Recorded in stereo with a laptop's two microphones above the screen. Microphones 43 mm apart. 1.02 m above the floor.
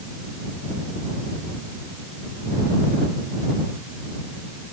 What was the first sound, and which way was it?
Only background noise.